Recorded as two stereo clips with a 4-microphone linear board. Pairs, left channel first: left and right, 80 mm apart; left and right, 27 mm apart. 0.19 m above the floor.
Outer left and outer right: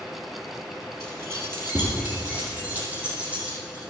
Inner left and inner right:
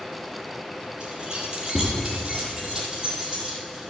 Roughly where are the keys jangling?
Right.